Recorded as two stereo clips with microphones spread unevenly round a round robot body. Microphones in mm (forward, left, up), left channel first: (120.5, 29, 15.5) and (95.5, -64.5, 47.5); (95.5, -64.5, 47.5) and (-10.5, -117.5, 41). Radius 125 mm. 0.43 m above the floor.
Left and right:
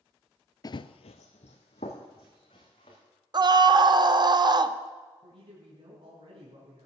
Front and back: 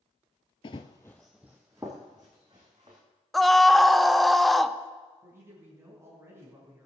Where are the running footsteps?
20° left, 0.5 m; by 3.0 s 135° left, 2.5 m.